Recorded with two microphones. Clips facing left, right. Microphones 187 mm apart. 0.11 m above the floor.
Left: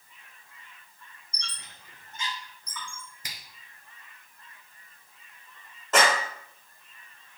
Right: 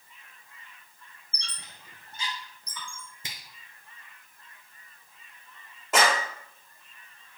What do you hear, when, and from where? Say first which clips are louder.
1.3 s a squeak: even; 35° right (ahead or behind), 2.5 m
3.2 s a finger snap: right 1 dB; 25° right (ahead or behind), 1.2 m
5.9 s a clap: left 1 dB; 10° right (ahead or behind), 4.5 m